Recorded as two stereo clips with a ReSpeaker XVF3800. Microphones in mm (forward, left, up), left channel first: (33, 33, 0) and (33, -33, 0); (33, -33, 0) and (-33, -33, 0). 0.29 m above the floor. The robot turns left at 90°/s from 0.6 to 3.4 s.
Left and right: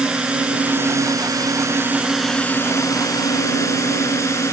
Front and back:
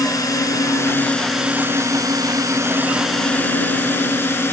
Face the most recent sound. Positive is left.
turn(degrees=50)